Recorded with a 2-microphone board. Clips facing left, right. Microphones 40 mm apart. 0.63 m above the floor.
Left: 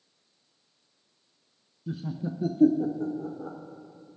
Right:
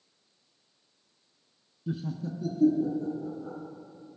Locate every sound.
1.9 s laughter: 10° right (ahead or behind), 0.5 m; by 3.6 s 60° left (ahead or behind), 1.3 m